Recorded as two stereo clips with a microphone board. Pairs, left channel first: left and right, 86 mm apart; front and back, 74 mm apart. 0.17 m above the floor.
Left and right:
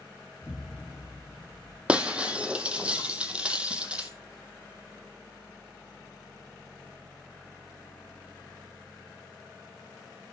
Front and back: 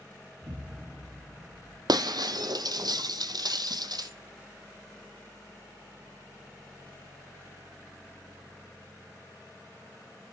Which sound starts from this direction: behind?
Breaking glass, at 1.9 s.